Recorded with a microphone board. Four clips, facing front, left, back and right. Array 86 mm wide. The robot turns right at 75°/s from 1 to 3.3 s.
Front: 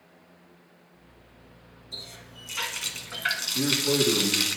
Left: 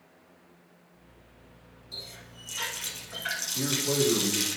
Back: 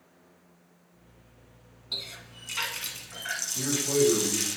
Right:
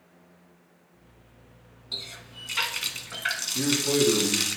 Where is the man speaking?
55° right, 3.5 m.